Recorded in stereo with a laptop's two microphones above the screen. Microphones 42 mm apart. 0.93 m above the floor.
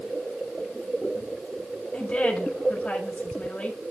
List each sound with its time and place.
1.9 s a woman speaking: 25° left (ahead or behind), 2.5 m